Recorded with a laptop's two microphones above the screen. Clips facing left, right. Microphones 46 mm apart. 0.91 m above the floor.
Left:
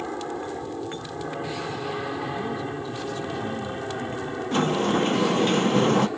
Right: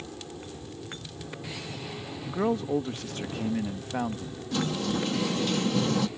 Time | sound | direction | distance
0.0 | an aircraft | 60° left (ahead or behind) | ?
2.3 | a man speaking | 60° right (ahead or behind) | ?
4.5 | a sliding door | 40° left (ahead or behind) | ?